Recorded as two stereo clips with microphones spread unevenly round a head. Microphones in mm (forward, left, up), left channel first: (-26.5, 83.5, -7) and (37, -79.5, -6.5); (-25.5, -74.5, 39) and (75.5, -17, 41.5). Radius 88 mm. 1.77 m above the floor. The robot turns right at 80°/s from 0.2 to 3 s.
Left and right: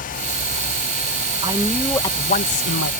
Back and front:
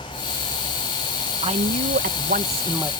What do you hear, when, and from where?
1.4 s a man speaking: 5° right; by 2.9 s 110° left